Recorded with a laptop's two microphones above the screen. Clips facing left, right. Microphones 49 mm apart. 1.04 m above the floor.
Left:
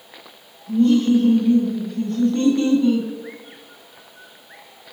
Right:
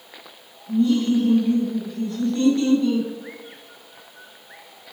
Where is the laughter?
60° left (ahead or behind), 1.5 m; by 3.1 s 20° left (ahead or behind), 1.2 m.